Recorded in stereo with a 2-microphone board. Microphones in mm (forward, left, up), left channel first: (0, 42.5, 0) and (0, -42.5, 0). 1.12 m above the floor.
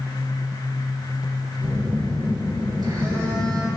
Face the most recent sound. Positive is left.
turn(degrees=-55)  # may be behind; listen again after turning